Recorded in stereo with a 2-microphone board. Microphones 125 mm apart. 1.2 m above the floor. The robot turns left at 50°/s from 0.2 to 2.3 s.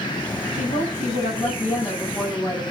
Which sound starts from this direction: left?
A woman speaking, at 0.5 s.